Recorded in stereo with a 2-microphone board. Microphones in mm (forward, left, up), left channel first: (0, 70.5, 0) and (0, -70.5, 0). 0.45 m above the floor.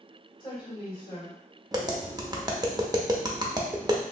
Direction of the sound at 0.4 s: 35° left (ahead or behind).